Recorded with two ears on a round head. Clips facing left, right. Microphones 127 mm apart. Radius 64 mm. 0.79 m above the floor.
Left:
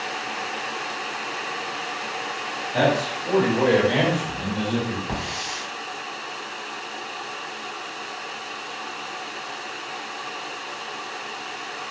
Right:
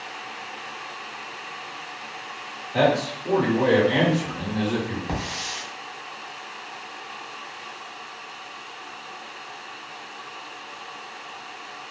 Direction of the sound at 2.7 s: 10° right (ahead or behind).